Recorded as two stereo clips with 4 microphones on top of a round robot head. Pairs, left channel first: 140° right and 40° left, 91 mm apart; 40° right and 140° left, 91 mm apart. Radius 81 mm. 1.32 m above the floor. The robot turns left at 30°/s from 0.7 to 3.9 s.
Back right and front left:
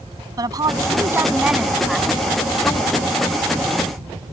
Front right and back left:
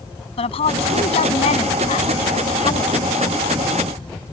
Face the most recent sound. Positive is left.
turn(degrees=-110)